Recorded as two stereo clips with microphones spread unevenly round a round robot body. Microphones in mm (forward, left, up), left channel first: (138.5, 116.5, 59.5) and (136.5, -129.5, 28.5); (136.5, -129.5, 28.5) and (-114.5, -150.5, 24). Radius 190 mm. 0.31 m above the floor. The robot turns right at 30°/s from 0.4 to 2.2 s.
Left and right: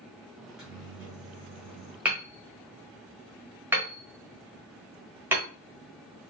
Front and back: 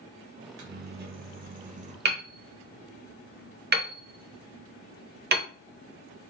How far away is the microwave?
About 1.0 m.